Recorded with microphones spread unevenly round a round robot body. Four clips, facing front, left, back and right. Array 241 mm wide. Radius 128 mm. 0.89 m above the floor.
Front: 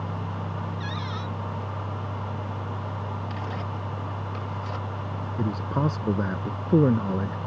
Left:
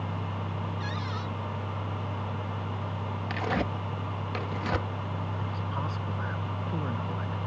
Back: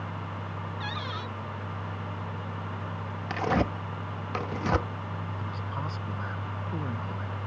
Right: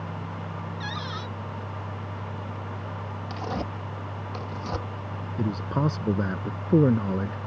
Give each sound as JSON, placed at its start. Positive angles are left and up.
{"t": 0.8, "sound": "a cupboard door", "azimuth_deg": -140}
{"t": 3.3, "sound": "tearing paper", "azimuth_deg": 175}
{"t": 5.4, "sound": "a man speaking", "azimuth_deg": -40}